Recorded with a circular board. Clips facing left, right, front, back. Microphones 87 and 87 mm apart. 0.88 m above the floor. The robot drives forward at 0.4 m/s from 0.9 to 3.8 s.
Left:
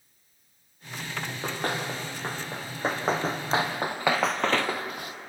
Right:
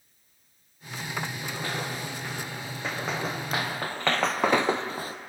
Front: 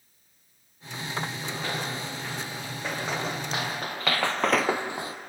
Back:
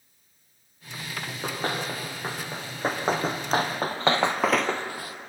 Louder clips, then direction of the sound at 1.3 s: Left 3 dB, back 3 dB; 135° left.